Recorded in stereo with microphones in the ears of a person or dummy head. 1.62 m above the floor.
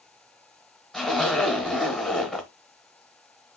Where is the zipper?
5° left (ahead or behind), 1.0 m.